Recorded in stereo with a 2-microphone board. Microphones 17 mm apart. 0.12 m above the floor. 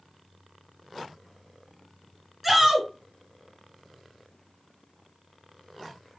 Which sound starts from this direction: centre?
A shout, at 2.4 s.